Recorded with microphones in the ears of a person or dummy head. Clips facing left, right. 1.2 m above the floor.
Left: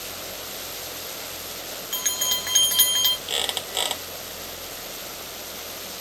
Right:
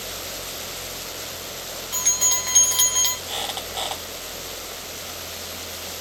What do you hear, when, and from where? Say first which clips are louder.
1.9 s a bell: right 1 dB; 20° left (ahead or behind), 0.5 m
3.3 s a squeak: even; 30° left (ahead or behind), 0.9 m